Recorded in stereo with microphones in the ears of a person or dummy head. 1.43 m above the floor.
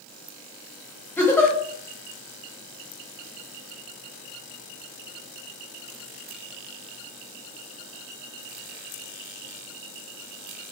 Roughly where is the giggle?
Centre.